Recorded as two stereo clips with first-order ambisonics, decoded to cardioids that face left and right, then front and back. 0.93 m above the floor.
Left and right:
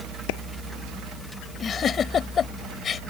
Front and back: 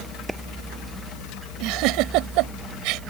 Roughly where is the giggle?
Behind left.